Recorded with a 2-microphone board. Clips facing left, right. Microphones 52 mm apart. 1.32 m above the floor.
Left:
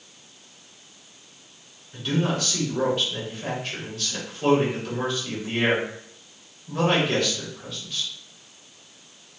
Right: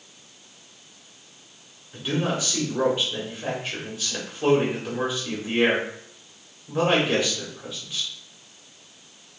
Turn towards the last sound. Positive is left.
turn(degrees=-10)  # may be behind; listen again after turning